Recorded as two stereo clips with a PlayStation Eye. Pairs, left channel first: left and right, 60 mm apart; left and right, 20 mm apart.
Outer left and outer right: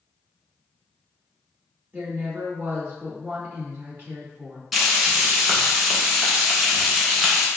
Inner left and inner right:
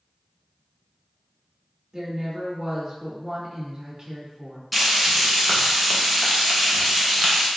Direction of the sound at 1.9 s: 35° right (ahead or behind).